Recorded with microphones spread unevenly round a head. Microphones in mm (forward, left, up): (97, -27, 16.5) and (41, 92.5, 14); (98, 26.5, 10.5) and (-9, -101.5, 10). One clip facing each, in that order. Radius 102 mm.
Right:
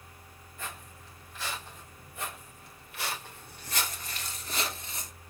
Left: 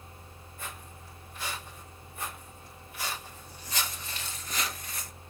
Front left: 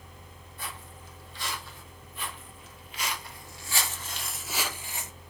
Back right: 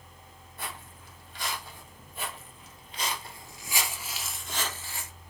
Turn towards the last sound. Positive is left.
turn(degrees=-5)